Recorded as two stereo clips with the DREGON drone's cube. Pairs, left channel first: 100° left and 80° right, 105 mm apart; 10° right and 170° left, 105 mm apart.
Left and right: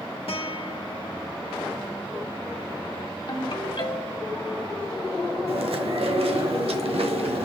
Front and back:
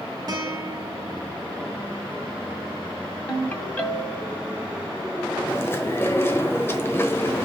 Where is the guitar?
120° left, 1.2 m.